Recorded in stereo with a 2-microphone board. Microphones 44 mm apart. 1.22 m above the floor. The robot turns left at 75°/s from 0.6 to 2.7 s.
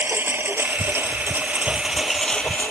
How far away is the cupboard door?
No cupboard door in this recording.